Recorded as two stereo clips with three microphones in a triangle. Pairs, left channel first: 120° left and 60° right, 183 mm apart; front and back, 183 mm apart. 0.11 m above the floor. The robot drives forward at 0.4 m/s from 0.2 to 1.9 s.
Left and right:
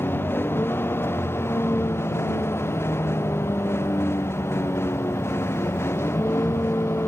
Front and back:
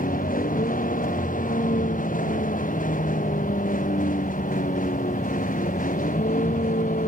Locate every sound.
0.0 s a vehicle: 40° left; by 7.1 s 45° left